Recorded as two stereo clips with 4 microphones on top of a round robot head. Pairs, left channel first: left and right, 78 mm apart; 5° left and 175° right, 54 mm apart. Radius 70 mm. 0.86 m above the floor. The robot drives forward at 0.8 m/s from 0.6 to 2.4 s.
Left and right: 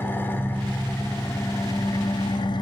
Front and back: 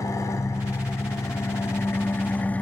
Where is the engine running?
25° left, 2 m; by 2.6 s 65° left, 1.0 m.